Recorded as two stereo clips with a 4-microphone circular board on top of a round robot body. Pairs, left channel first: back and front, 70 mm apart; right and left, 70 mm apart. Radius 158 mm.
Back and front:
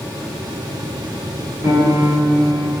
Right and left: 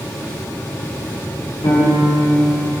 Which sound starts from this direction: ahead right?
A piano, at 1.6 s.